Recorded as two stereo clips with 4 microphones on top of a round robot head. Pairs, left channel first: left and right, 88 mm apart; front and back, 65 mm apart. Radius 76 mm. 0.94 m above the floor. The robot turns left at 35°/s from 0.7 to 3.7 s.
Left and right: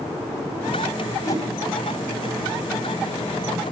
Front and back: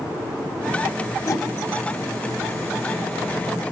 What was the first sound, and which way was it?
A whoosh, 35° left.